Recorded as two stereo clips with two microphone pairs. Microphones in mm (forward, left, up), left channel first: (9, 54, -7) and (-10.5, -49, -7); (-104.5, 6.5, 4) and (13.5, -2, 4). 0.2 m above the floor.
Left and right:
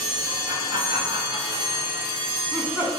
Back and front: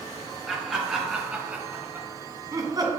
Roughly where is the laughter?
Right.